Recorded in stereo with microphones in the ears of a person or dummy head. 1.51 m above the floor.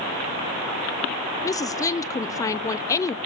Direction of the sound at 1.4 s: 15° left (ahead or behind).